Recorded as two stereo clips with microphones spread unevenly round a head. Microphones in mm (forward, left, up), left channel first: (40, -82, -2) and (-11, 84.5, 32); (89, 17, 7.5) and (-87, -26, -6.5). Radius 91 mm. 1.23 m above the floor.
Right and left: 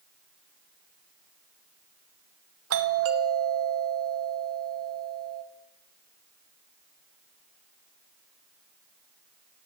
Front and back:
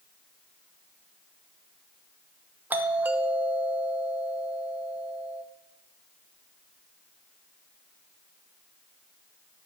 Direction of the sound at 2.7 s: 115° left.